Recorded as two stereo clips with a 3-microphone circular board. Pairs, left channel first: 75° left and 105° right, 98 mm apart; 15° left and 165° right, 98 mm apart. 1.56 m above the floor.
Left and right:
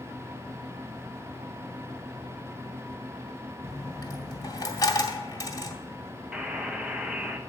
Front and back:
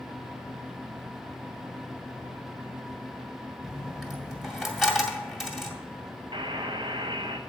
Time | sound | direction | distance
3.6 | a dropped coin | 110° left | 1.8 m
6.3 | a buzzer | 175° left | 1.0 m